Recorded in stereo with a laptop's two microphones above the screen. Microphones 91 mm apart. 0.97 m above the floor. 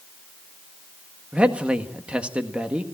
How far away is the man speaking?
About 1.3 m.